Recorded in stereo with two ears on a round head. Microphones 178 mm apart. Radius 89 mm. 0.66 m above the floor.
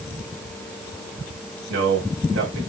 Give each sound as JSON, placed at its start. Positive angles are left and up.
{"t": 1.7, "sound": "a man speaking", "side_deg": -65, "distance_m": 3.0}